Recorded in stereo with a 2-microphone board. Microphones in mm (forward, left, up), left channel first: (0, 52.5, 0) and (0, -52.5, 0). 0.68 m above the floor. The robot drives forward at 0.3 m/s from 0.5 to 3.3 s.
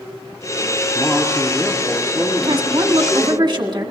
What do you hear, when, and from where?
0.9 s a man speaking: 10° left (ahead or behind), 1.1 m; by 3.4 s 5° left (ahead or behind), 1.7 m
2.4 s a woman speaking: 50° right (ahead or behind), 1.3 m; by 3.9 s 45° right (ahead or behind), 1.4 m